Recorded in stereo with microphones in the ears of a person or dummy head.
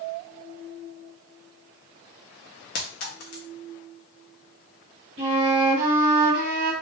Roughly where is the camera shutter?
I don't hear a camera shutter.